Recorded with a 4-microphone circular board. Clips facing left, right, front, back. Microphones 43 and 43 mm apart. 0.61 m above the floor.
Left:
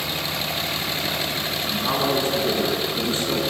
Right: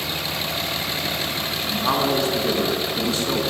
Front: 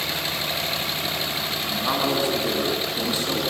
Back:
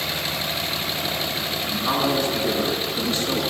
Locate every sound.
1.7 s a man speaking: 75° right, 7.5 m